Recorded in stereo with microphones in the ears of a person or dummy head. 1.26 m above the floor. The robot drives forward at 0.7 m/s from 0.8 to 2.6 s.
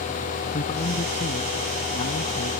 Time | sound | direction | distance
0.5 | a man speaking | 35° left (ahead or behind) | ?